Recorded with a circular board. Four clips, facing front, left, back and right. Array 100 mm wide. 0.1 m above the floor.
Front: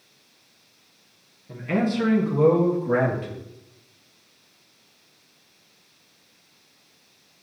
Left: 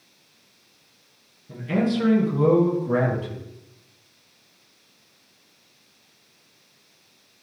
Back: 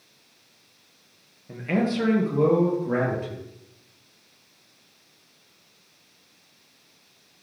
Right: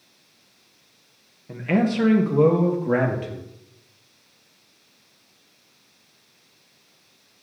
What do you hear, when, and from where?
1.5 s a man speaking: 105° right, 2.5 m; by 3.4 s 80° right, 3 m